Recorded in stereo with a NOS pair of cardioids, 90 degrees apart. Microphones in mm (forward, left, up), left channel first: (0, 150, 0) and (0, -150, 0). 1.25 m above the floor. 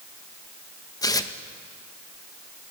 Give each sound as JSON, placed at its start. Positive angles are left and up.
{"t": 1.0, "sound": "tearing paper", "azimuth_deg": 10, "distance_m": 1.8}